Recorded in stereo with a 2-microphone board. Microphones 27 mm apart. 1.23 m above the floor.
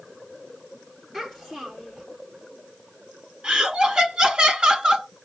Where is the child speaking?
5° right (ahead or behind), 3 m.